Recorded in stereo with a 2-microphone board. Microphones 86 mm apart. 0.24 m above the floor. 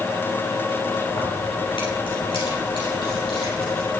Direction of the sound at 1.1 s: 75° left (ahead or behind).